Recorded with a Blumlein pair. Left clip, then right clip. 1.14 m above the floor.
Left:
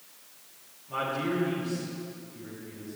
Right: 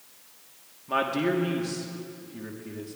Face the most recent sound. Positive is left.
turn(degrees=-35)